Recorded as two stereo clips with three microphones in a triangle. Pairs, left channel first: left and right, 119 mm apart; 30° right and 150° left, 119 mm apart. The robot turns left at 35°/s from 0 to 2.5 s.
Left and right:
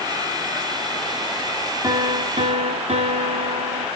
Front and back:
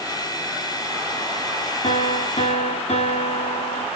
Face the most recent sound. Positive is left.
turn(degrees=-55)